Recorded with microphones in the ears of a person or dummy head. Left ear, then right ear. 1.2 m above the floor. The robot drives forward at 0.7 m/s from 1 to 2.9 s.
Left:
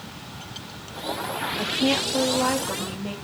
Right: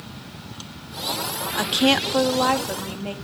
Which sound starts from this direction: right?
A woman speaking, at 1.6 s.